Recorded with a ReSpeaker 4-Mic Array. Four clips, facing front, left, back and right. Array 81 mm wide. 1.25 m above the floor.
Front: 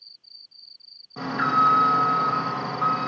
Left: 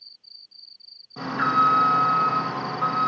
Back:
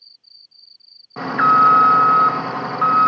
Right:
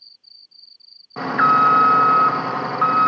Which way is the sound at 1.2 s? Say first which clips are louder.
Right 6 dB, back 8 dB; 130° right.